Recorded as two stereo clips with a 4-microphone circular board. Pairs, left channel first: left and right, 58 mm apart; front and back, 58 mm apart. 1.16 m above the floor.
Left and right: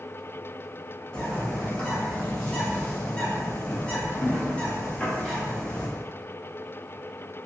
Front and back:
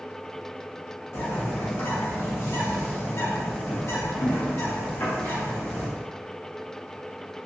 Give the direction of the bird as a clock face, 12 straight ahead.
11 o'clock.